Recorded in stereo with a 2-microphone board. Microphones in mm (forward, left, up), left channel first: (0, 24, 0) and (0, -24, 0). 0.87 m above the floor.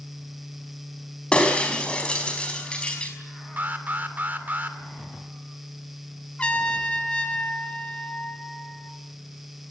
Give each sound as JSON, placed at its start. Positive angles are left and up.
{"t": 1.3, "sound": "breaking glass", "side_deg": 20, "distance_m": 4.5}
{"t": 3.6, "sound": "an alarm", "side_deg": -40, "distance_m": 2.0}
{"t": 6.4, "sound": "a trumpet", "side_deg": 20, "distance_m": 2.0}